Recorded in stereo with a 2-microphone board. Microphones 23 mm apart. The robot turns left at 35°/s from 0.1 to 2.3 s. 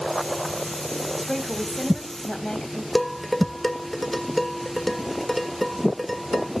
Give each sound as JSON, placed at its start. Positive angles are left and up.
{"t": 1.2, "sound": "a woman speaking", "azimuth_deg": -175, "distance_m": 3.0}
{"t": 3.0, "sound": "dishes clattering", "side_deg": 10, "distance_m": 1.4}